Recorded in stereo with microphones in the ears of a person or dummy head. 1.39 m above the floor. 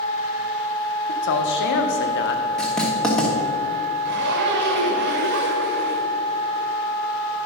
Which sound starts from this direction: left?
A man speaking, at 1.1 s.